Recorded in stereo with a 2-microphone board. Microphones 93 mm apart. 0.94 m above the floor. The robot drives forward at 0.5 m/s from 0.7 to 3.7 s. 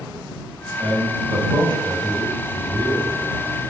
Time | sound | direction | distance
0.8 | a man speaking | 70° right (ahead or behind) | 1.9 m